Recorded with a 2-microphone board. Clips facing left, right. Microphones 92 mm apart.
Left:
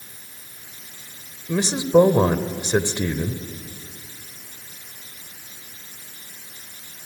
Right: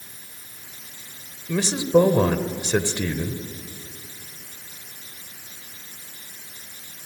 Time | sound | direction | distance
1.5 | a man speaking | 20° left (ahead or behind) | 1.1 m